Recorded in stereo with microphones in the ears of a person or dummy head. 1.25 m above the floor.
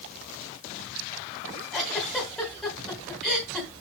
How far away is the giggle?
About 3 m.